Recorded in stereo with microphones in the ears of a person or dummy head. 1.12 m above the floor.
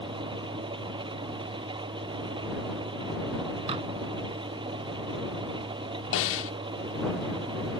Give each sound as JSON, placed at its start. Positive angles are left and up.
{"t": 0.0, "sound": "an engine running", "side_deg": -25}
{"t": 3.7, "sound": "dishes clattering", "side_deg": -30}
{"t": 6.1, "sound": "a snare drum", "side_deg": 70}